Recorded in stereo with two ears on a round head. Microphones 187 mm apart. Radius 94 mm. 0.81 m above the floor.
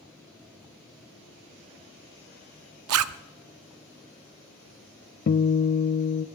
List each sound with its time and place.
2.9 s a zipper: 75° right (ahead or behind), 0.5 m
5.3 s a guitar: 45° left (ahead or behind), 0.5 m